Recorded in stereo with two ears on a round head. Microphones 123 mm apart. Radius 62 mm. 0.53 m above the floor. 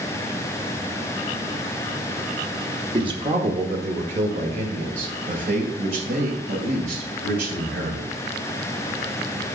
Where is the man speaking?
35° right (ahead or behind), 1.0 m; by 8.1 s 75° right (ahead or behind), 3.5 m.